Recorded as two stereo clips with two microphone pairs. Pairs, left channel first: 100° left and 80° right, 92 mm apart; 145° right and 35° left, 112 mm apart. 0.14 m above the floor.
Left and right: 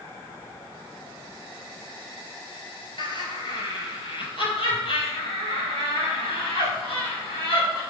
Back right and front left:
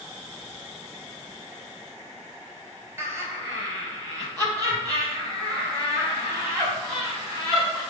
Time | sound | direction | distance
3.0 | laughter | 100° left | 3 m